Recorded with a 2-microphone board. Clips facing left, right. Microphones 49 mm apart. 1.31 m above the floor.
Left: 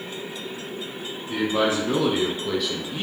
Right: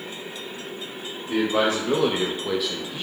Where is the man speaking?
65° right (ahead or behind), 1.2 m; by 3.0 s 30° left (ahead or behind), 0.6 m.